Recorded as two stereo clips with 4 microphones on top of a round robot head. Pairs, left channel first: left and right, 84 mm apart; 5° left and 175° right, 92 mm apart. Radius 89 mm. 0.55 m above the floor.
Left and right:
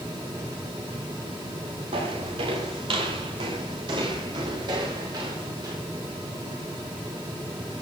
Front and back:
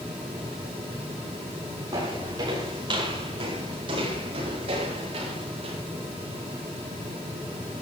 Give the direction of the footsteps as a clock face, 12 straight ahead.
4 o'clock.